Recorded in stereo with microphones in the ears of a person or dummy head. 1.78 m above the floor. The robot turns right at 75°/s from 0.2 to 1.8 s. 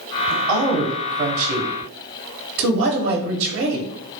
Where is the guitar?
No guitar in this recording.